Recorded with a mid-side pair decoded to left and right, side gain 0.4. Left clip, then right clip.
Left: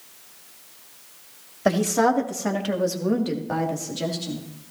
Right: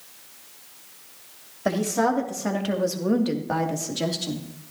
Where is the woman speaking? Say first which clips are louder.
Left 3 dB; 35° left, 3 m; by 4.4 s 40° right, 3 m.